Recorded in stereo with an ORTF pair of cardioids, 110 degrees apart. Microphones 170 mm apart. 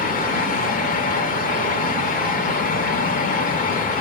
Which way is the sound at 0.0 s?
50° left.